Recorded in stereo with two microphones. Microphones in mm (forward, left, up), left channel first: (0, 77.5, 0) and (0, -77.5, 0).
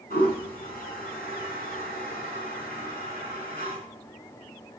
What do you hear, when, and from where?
0.1 s a toilet flushing: 75° left (ahead or behind), 5 m